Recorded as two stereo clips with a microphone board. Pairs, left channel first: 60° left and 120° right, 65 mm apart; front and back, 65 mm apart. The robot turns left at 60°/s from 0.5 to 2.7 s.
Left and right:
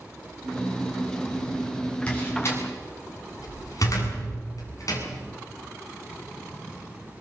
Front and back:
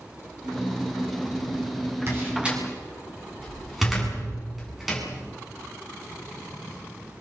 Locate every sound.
2.1 s a door slam: 130° left, 7.5 m; by 5.0 s 90° left, 7.5 m